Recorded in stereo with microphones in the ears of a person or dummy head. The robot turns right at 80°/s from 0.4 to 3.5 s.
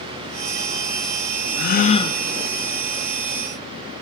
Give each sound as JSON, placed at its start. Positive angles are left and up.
{"t": 1.6, "sound": "a gasp", "azimuth_deg": 115, "distance_m": 0.9}